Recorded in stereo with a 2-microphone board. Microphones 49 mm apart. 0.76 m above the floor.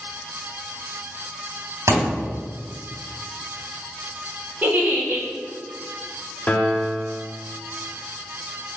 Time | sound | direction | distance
1.9 | a thud | 80° right | 1.7 m
4.6 | a giggle | 40° right (ahead or behind) | 1.1 m
6.5 | a piano | 35° left (ahead or behind) | 0.5 m